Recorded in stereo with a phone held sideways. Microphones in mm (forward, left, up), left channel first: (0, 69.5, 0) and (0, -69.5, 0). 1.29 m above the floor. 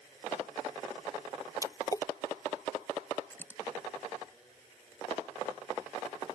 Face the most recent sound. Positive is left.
turn(degrees=15)  # may be behind; listen again after turning